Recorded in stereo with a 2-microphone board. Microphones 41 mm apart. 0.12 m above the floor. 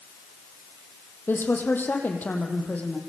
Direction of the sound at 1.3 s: 55° left (ahead or behind).